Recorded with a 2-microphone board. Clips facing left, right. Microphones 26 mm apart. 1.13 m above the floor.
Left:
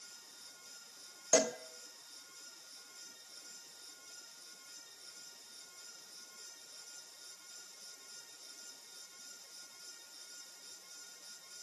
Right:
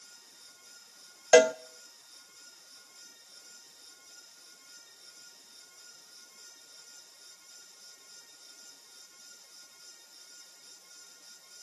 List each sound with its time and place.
1.3 s a cowbell: 70° right (ahead or behind), 0.5 m